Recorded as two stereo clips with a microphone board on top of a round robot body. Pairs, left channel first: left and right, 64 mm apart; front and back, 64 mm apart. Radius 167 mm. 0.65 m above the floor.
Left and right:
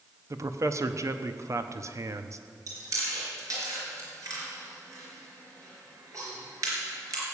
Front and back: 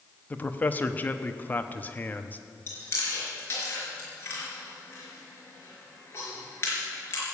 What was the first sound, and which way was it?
A man speaking, 60° right.